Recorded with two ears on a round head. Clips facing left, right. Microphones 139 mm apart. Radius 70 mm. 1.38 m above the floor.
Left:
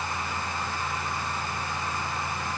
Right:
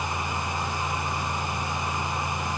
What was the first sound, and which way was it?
Only background noise.